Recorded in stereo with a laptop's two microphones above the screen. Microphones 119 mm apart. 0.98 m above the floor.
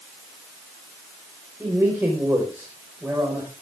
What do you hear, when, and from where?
1.6 s a man speaking: 15° right (ahead or behind), 4.5 m